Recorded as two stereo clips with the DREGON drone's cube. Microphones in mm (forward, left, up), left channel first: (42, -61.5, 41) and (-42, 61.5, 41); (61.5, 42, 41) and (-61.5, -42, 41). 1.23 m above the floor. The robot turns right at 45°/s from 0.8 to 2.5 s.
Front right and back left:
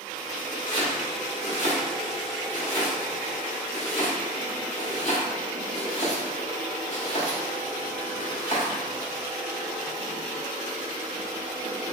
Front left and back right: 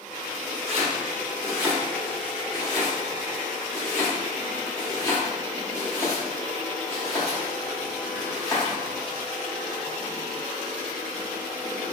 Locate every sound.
0.7 s chopping: 105° right, 1.0 m; by 8.7 s 30° right, 1.0 m